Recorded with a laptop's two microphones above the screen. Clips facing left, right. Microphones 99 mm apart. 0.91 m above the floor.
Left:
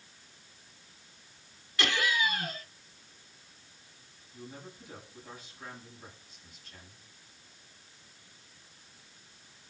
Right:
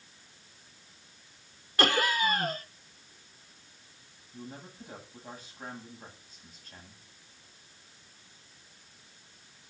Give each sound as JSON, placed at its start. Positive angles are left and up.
{"t": 1.8, "sound": "laughter", "side_deg": -40, "distance_m": 0.8}
{"t": 4.3, "sound": "a man speaking", "side_deg": -40, "distance_m": 7.5}